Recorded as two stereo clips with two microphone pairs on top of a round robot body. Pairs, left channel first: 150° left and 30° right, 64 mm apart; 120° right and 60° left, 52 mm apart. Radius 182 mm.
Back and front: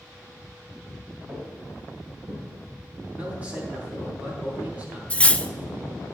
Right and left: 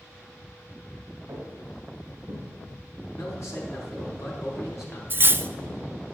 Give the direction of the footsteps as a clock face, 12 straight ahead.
11 o'clock.